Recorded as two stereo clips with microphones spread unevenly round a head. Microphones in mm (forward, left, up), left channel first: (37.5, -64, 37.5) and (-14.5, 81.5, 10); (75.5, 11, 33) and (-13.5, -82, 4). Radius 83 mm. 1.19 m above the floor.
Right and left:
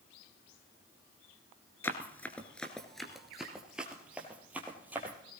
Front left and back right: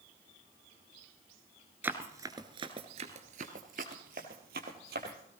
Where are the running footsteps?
45° right, 1.2 m; by 5.2 s 165° right, 2.5 m.